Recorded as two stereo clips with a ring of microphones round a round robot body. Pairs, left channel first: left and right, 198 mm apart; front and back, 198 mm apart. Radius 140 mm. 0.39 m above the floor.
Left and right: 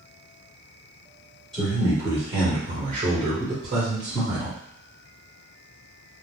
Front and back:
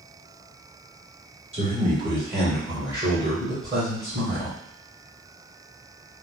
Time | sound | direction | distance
1.5 | a man speaking | straight behind | 1.2 m